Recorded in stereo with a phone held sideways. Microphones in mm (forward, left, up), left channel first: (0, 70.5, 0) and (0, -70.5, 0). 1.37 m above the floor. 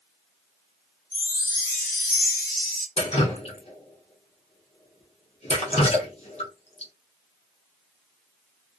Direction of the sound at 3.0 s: 50° left (ahead or behind).